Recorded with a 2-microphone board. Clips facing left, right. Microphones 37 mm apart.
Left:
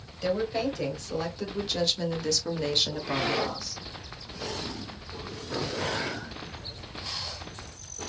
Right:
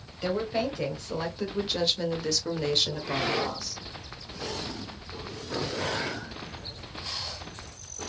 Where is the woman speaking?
15° right (ahead or behind), 1.4 m; by 3.8 s 5° left (ahead or behind), 1.2 m.